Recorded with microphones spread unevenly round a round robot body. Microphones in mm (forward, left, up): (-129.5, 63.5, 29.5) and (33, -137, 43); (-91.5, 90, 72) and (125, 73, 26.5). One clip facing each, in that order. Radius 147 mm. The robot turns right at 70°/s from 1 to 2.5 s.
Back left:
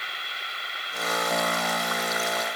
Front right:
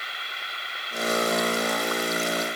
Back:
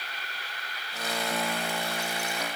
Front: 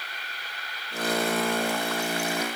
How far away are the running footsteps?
I don't hear running footsteps.